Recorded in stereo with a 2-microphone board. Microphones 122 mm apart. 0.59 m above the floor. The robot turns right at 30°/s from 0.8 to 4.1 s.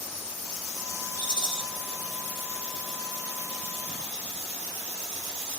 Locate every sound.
1.2 s a rattle: 35° left (ahead or behind), 1.2 m; by 1.6 s 45° left (ahead or behind), 1.2 m